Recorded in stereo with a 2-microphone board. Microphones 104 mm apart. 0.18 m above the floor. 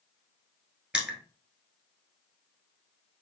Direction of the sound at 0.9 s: 10° right (ahead or behind).